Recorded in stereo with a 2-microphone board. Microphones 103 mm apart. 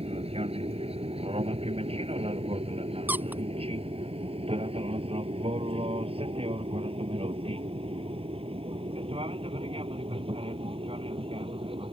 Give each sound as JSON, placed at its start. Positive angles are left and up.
{"t": 0.0, "sound": "an aircraft", "side_deg": -75}
{"t": 3.1, "sound": "a squeak", "side_deg": -15}